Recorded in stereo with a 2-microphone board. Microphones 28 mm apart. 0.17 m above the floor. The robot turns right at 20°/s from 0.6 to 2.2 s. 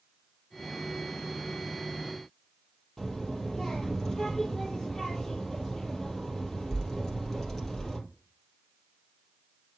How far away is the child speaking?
About 3.5 m.